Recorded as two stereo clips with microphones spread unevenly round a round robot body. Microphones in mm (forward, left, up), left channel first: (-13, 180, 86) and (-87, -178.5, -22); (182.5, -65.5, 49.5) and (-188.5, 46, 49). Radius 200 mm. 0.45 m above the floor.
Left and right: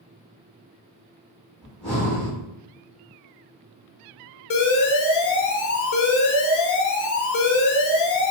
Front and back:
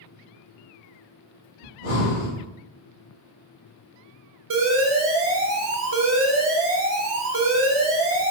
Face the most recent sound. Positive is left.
turn(degrees=120)